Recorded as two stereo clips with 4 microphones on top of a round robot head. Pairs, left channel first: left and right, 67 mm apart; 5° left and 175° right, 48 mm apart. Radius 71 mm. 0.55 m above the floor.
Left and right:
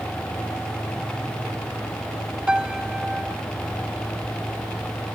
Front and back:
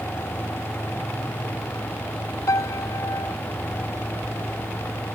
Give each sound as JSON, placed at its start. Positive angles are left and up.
{"t": 2.5, "sound": "a piano", "azimuth_deg": -10}